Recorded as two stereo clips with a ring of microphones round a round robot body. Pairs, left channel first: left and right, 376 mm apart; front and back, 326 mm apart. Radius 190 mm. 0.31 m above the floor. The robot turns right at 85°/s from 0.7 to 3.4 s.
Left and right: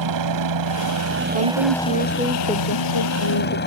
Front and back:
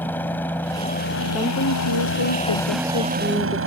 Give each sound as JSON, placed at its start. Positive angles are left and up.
{"t": 0.0, "sound": "a helicopter", "azimuth_deg": -85}
{"t": 1.3, "sound": "a woman speaking", "azimuth_deg": -90}